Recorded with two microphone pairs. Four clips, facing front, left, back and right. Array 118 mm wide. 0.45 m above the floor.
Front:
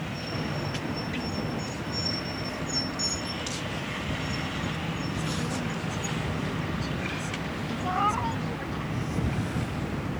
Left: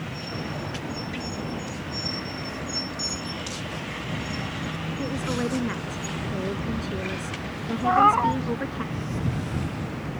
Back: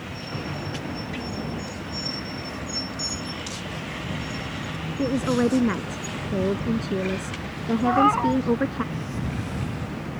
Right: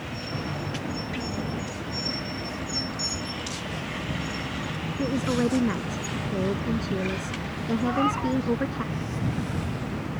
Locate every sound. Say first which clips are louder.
5.0 s a woman speaking: right 4 dB, back 15 dB; 170° right
7.8 s a cat meowing: left 8 dB, back 8 dB; 115° left